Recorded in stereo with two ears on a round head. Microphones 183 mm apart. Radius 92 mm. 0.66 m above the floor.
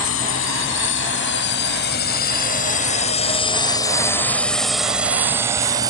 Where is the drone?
70° left (ahead or behind); by 5.9 s 20° right (ahead or behind).